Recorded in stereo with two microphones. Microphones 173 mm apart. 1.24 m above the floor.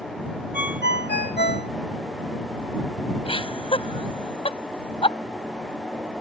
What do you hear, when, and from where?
0.5 s a ringtone: 70° left (ahead or behind)
3.2 s laughter: 30° left (ahead or behind)